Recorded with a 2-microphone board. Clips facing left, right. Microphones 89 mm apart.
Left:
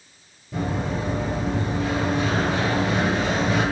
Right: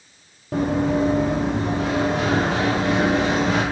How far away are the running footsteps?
About 3.5 m.